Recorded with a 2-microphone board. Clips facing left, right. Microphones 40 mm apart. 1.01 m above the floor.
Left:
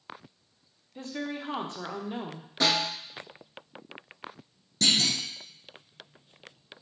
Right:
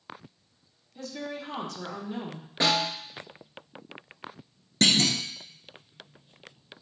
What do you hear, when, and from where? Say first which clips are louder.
0.9 s a woman speaking: left 1 dB; 30° left (ahead or behind), 0.8 m
2.6 s a snare drum: right 1 dB; 20° right (ahead or behind), 3 m
4.8 s a clunk: right 3 dB; 50° right (ahead or behind), 0.6 m